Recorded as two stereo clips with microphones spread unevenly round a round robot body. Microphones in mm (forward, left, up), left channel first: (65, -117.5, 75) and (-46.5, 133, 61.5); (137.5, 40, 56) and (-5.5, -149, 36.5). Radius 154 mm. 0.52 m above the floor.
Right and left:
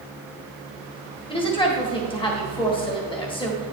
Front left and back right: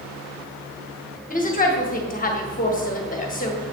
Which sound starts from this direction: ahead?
A woman speaking, at 1.3 s.